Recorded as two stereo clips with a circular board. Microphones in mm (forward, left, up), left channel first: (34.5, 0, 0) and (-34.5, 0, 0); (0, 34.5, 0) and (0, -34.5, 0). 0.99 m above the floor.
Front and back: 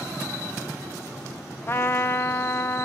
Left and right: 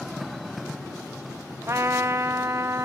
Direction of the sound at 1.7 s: 50° right.